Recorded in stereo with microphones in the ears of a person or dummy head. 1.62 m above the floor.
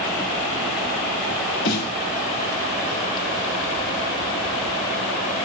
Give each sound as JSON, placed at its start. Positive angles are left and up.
{"t": 1.6, "sound": "a snare drum", "side_deg": 40, "distance_m": 0.8}